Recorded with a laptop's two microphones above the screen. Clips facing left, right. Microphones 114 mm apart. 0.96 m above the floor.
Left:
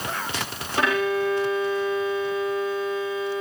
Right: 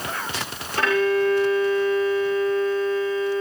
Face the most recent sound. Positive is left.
turn(degrees=15)  # may be behind; listen again after turning